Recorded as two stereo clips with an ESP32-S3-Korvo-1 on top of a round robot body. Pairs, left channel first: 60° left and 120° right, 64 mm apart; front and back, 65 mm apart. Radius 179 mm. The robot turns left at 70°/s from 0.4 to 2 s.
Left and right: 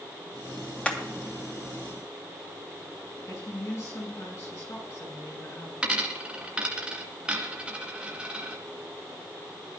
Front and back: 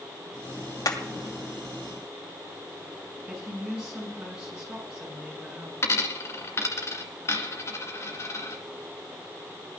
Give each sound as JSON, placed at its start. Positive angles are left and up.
{"t": 0.8, "sound": "hammering", "azimuth_deg": -15, "distance_m": 3.0}
{"t": 3.3, "sound": "a woman speaking", "azimuth_deg": 100, "distance_m": 8.5}
{"t": 5.8, "sound": "a dropped coin", "azimuth_deg": -45, "distance_m": 1.7}